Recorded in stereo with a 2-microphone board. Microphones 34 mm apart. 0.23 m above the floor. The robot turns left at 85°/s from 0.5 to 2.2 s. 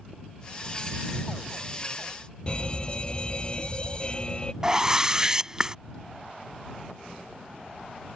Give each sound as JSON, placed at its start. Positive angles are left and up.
{"t": 2.5, "sound": "a fire alarm", "side_deg": 30}
{"t": 4.6, "sound": "a whoosh", "side_deg": -20}